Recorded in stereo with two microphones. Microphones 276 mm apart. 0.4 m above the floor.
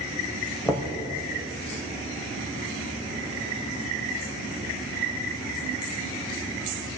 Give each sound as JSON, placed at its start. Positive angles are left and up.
{"t": 0.7, "sound": "knocking", "side_deg": 10, "distance_m": 1.5}